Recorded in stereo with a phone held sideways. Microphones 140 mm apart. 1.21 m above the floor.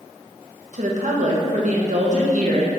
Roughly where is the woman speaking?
Right.